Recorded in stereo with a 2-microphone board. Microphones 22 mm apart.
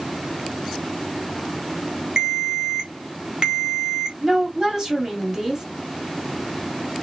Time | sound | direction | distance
2.2 | a ringtone | 40° right (ahead or behind) | 1.1 m
4.2 | a woman speaking | 20° right (ahead or behind) | 1.6 m